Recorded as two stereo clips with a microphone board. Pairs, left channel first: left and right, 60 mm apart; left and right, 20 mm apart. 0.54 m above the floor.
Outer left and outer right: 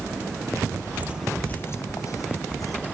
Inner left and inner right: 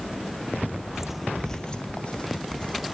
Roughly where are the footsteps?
Right.